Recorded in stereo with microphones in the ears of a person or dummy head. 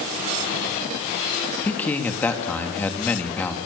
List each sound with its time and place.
1.6 s a man speaking: 10° left (ahead or behind), 2.5 m